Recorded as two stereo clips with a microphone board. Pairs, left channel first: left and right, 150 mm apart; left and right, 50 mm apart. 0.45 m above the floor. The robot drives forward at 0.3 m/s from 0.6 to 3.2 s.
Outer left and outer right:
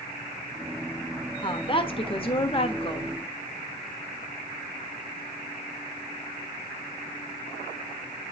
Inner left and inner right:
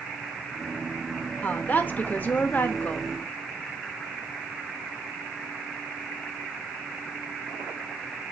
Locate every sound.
1.4 s a woman speaking: 35° left (ahead or behind), 1.1 m